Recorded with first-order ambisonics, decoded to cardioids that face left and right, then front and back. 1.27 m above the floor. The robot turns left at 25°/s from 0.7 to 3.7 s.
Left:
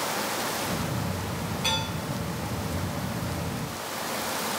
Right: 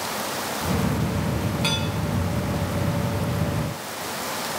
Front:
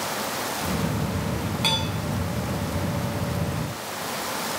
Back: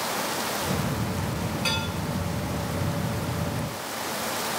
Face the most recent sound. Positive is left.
turn(degrees=-75)